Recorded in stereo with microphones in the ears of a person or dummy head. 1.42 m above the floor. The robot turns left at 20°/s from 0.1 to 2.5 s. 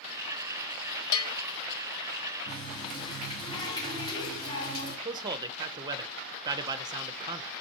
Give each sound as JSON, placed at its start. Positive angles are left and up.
{"t": 1.1, "sound": "a bell", "side_deg": 70, "distance_m": 0.6}
{"t": 2.5, "sound": "a running tap", "side_deg": 30, "distance_m": 3.0}
{"t": 5.0, "sound": "a man speaking", "side_deg": -25, "distance_m": 0.6}